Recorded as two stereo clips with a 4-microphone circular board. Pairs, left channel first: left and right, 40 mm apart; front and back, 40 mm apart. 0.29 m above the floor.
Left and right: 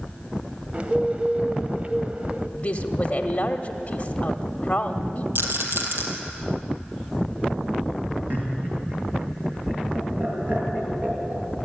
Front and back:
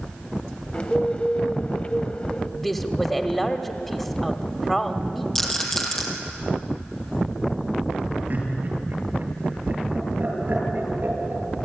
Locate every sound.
0.7 s a bird: 45° right, 0.8 m
2.6 s a woman speaking: 85° left, 1.0 m
5.3 s a rattle: 75° right, 3 m
8.3 s laughter: 135° right, 6.5 m